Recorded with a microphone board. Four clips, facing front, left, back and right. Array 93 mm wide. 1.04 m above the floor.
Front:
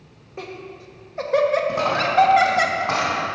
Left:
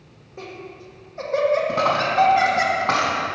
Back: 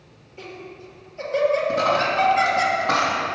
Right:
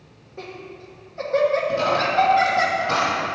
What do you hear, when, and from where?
0.4 s laughter: 5° left, 1.0 m
1.7 s a dropped coin: 70° left, 3.5 m